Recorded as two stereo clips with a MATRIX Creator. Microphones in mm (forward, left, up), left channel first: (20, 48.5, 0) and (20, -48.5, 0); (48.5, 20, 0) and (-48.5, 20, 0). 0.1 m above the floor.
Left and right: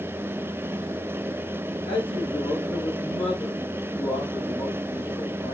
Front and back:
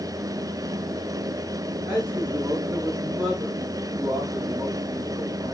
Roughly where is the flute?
No flute in this recording.